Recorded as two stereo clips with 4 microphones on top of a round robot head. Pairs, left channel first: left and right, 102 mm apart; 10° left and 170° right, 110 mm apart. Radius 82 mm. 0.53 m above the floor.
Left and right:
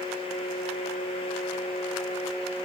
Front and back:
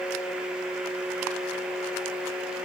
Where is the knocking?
No knocking in this recording.